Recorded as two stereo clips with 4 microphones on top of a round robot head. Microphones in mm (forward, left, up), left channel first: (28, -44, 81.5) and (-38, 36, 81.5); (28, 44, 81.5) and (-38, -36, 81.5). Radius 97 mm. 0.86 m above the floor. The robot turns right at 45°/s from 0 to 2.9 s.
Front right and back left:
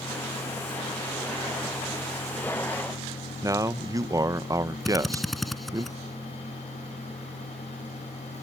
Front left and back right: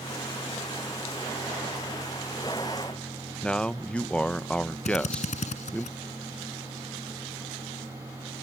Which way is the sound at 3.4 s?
120° left.